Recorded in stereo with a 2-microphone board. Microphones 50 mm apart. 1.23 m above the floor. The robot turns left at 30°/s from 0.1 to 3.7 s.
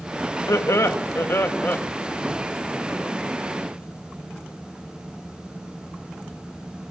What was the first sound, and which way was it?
Laughter, 75° left.